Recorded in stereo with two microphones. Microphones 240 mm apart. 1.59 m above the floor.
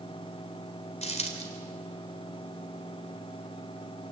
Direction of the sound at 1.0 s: 25° left (ahead or behind).